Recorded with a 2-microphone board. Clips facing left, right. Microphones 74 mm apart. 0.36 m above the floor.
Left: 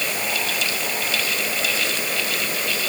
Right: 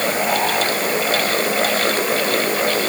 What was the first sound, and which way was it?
Only background noise.